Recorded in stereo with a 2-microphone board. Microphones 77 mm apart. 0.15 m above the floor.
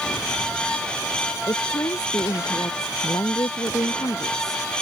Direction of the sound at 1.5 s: 50° left (ahead or behind).